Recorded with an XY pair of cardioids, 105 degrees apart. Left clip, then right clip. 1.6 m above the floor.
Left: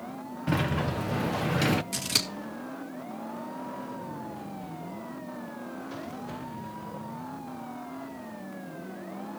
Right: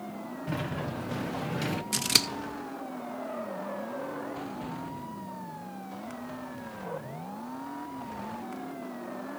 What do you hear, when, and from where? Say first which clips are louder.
0.5 s a sliding door: left 6 dB; 45° left, 0.9 m
1.9 s scissors: right 3 dB; 30° right, 2 m